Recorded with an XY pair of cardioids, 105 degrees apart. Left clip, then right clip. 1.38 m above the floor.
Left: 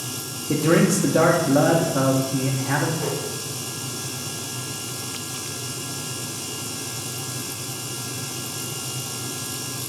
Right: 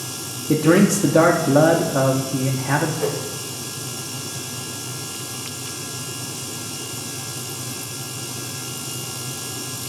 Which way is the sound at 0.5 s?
30° right.